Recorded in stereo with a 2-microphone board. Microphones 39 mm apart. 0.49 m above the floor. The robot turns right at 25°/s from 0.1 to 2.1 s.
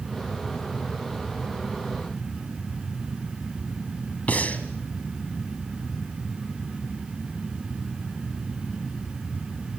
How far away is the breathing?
About 2 m.